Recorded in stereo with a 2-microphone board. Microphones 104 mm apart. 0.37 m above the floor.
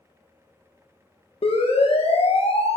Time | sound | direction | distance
1.4 | a siren | 80° left | 6.5 m